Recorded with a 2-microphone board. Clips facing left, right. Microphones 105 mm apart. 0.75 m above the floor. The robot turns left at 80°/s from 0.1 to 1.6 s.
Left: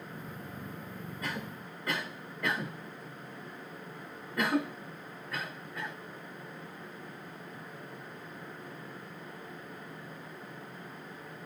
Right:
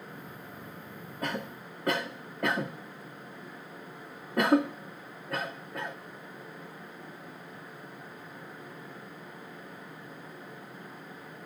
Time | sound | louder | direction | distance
1.2 | a cough | right 5 dB | 50° right (ahead or behind) | 1.1 m